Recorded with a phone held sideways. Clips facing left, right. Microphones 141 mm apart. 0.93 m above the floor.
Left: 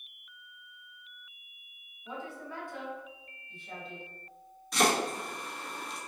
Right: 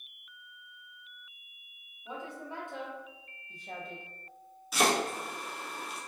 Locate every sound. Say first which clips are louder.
2.0 s a woman speaking: even; 15° right (ahead or behind), 1.6 m; by 4.0 s 50° right (ahead or behind), 0.8 m
4.7 s chopping: left 1 dB; 5° right (ahead or behind), 0.8 m